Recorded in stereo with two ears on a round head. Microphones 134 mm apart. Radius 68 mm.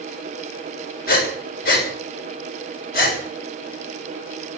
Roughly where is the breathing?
Left.